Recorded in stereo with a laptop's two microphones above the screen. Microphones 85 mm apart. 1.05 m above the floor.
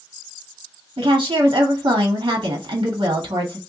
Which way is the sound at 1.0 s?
80° right.